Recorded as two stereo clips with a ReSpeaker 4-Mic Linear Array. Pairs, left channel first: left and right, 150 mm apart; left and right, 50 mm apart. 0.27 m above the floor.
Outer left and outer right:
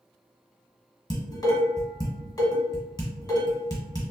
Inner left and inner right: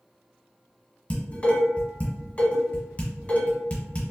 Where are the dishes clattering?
30° left (ahead or behind), 1.4 m.